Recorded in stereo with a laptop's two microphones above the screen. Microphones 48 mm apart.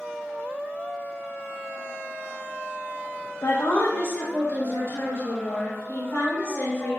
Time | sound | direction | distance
3.4 | a woman speaking | 75° left (ahead or behind) | 0.9 m